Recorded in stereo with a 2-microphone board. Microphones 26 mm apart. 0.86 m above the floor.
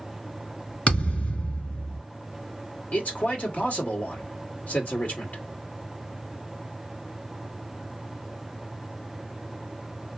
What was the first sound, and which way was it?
A thud, 50° left (ahead or behind).